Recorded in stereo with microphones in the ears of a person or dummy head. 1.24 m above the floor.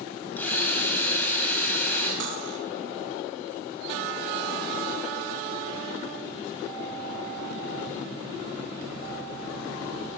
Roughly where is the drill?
Centre.